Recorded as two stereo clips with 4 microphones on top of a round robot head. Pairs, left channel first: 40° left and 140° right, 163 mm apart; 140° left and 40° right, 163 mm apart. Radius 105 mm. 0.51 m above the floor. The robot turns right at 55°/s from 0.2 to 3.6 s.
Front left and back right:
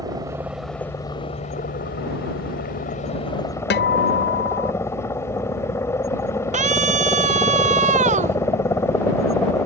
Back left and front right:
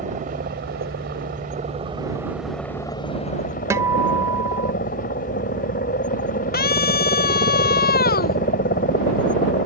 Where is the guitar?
35° left.